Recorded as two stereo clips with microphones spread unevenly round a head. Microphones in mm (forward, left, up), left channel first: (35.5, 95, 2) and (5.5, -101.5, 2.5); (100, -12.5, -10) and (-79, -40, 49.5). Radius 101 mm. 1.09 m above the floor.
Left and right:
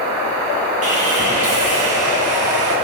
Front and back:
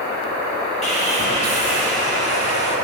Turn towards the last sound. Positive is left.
turn(degrees=-45)